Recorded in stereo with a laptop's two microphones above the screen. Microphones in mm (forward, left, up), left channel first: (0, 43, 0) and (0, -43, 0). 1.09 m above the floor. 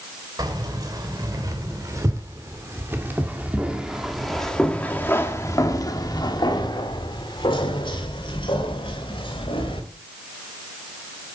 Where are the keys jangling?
50° right (ahead or behind), 3 m; by 9.8 s 85° left, 3 m.